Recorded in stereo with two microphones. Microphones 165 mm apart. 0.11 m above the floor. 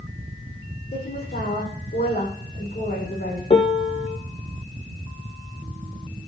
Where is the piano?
35° left (ahead or behind), 0.8 m.